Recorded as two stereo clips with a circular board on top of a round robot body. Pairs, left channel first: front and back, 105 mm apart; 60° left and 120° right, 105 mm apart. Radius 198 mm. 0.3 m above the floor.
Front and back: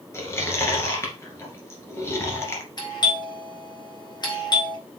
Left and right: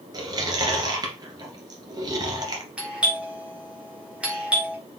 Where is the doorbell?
40° right, 3.5 m.